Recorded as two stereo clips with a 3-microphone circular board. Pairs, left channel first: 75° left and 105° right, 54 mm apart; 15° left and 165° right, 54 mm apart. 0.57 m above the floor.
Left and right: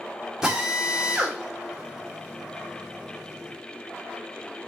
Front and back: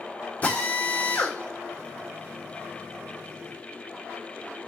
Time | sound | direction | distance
0.4 | a drill | 30° right | 1.8 m